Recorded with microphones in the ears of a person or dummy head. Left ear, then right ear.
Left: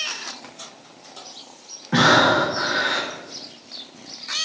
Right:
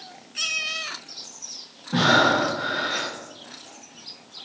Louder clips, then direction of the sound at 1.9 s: Left 3 dB; 60° left (ahead or behind).